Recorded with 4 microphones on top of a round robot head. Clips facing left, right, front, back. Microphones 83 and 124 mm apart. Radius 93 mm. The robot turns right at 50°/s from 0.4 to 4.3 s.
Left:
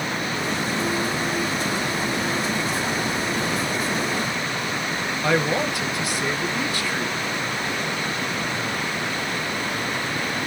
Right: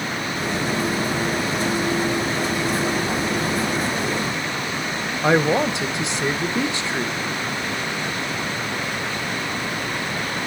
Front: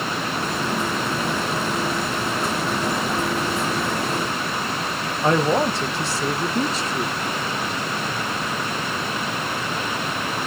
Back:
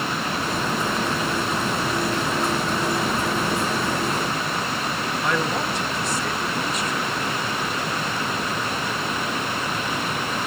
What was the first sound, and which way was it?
A man speaking, 40° right.